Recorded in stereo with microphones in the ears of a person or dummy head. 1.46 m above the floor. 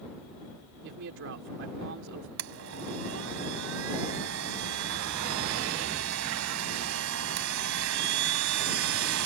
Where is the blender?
70° right (ahead or behind).